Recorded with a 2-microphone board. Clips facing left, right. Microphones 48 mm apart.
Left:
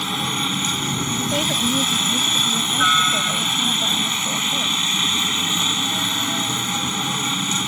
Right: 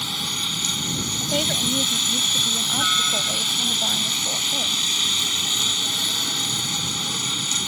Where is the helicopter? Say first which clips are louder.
Left 5 dB; 25° left (ahead or behind).